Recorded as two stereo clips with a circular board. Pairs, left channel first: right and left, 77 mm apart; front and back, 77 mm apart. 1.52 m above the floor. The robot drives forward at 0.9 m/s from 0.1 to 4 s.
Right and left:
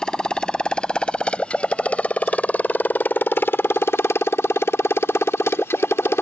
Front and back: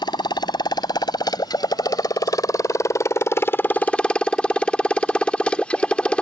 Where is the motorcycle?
10° right; by 6.2 s 65° right.